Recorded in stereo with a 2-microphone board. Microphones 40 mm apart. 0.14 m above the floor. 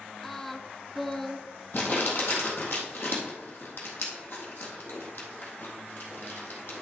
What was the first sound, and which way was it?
Singing, 10° left (ahead or behind).